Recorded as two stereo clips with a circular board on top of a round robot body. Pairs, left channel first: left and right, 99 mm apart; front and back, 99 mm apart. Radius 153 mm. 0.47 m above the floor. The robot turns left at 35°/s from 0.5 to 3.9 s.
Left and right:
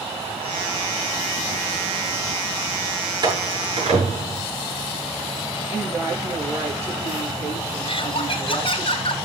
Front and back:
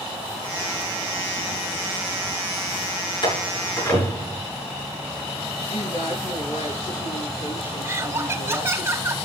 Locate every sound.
3.2 s a door slam: 40° right, 7 m; by 4.4 s 65° right, 7 m
5.7 s a woman speaking: 30° right, 8.5 m
7.8 s laughter: 115° left, 2.5 m